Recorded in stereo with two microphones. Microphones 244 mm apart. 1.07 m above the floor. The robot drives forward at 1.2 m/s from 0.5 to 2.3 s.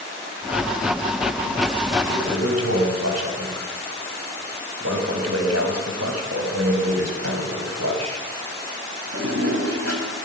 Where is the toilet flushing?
80° right, 5 m; by 10.2 s 85° right, 5 m.